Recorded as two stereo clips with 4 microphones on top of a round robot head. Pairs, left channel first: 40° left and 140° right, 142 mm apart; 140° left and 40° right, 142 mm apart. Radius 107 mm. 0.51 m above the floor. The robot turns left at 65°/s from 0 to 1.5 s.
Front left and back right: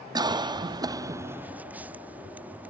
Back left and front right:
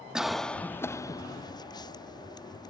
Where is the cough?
120° right; by 2.7 s 150° left.